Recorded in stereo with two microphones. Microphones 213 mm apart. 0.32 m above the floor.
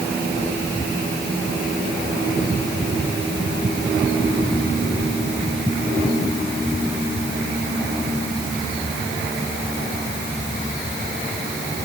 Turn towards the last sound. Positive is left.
No sound to turn to.